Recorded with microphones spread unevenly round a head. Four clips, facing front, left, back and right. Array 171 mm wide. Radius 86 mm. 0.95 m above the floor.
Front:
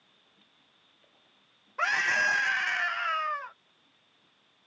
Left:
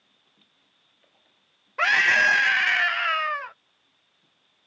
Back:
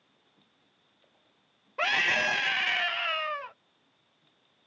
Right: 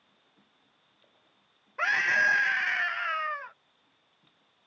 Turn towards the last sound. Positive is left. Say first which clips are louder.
# left 5 dB, front 1 dB
turn(degrees=150)